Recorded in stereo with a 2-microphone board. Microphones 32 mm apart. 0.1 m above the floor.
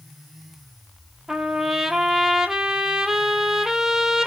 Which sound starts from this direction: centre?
A trumpet, at 1.3 s.